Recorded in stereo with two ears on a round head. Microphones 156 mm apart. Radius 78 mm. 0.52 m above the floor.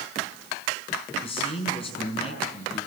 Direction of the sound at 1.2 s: 35° left (ahead or behind).